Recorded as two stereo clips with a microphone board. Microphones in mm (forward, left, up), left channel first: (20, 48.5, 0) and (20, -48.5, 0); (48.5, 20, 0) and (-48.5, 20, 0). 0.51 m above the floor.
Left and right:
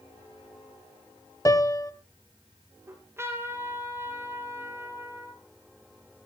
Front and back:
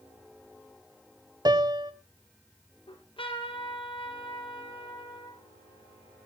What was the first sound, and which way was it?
A piano, 140° left.